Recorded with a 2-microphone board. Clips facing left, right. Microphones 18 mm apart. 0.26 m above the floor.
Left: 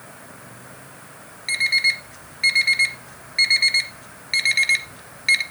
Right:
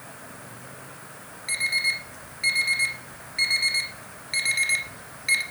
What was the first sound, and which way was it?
An alarm clock, 30° left (ahead or behind).